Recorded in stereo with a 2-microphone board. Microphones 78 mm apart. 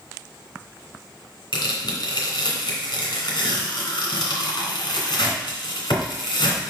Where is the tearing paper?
75° left (ahead or behind), 2.5 m.